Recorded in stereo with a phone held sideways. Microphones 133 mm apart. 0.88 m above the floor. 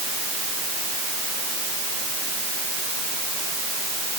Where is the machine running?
No machine running in this recording.